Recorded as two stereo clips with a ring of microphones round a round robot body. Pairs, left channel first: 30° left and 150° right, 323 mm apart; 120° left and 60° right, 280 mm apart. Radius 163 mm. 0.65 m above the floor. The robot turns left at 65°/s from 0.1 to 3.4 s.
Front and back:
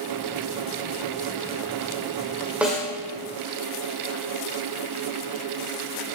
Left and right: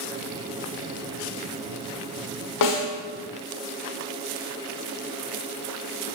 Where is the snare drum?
125° left, 1.1 m; by 2.9 s 105° left, 1.1 m.